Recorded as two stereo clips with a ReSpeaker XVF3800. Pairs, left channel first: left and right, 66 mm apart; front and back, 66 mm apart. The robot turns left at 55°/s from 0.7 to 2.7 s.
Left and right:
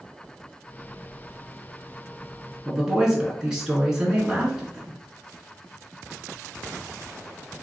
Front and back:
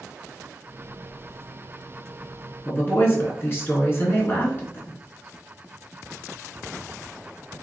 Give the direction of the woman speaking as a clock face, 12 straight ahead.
12 o'clock.